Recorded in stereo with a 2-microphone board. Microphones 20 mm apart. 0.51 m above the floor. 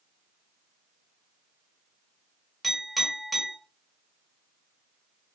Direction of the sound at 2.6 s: 5° right (ahead or behind).